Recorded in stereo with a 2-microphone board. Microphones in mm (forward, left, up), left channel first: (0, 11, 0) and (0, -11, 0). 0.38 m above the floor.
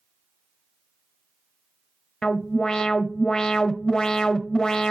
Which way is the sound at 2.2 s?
30° left (ahead or behind).